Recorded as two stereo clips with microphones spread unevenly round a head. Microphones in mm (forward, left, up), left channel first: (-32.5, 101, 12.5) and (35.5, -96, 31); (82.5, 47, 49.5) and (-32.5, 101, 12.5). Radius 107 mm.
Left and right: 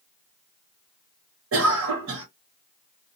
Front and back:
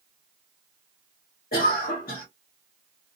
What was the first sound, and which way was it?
A cough, 60° right.